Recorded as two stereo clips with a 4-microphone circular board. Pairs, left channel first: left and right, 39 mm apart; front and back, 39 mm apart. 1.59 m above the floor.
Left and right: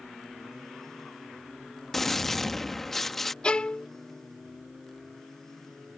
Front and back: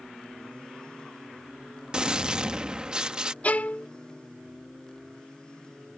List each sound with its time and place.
1.9 s a gunshot: 160° left
3.4 s a violin: 35° left